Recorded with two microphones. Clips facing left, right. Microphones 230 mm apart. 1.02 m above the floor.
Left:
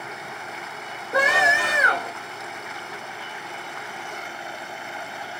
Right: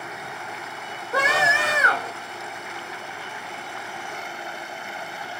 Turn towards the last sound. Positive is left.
turn(degrees=15)  # may be behind; listen again after turning